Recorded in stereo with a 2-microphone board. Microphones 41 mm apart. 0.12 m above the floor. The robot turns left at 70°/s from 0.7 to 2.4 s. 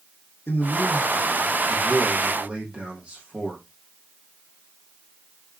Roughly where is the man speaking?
Left.